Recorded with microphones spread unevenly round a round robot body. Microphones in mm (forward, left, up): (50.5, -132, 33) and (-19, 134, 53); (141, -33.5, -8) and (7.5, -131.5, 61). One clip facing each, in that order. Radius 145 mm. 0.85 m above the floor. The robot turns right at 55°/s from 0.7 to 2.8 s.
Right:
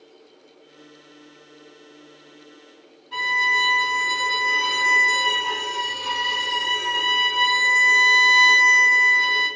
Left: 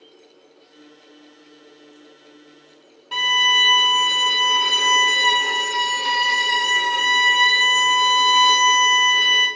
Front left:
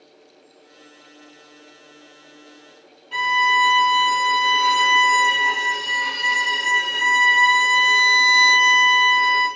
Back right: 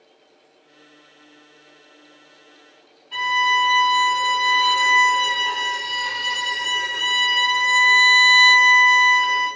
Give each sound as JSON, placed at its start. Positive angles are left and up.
{"t": 3.1, "sound": "a violin", "azimuth_deg": 85, "distance_m": 0.7}